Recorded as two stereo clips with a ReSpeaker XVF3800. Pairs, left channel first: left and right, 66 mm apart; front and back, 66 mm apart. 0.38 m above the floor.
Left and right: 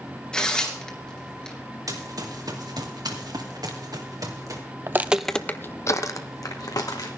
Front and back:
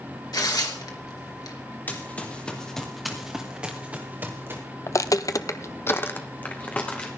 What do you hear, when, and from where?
0.3 s tearing paper: 15° left, 2.5 m
1.9 s running footsteps: 65° right, 2.5 m; by 4.6 s 125° right, 2.5 m
4.9 s footsteps: 40° right, 0.7 m; by 7.1 s 70° left, 2 m